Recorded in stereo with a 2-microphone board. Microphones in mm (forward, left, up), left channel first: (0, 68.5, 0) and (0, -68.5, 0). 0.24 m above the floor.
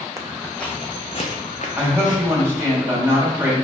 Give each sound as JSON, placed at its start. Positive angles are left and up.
{"t": 0.2, "sound": "footsteps", "side_deg": -20, "distance_m": 0.8}
{"t": 1.8, "sound": "a woman speaking", "side_deg": -20, "distance_m": 1.2}